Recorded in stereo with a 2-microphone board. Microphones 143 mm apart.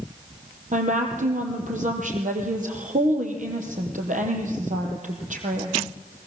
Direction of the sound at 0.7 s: 65° right (ahead or behind).